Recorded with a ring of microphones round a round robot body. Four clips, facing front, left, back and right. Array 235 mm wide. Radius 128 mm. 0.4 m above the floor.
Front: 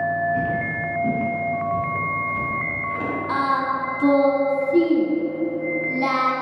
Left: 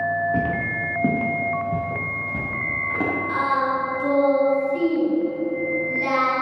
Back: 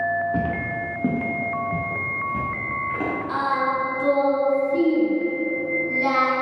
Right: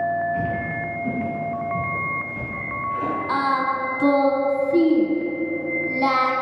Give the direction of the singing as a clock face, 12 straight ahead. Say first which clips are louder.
Right 1 dB, front 2 dB; 2 o'clock.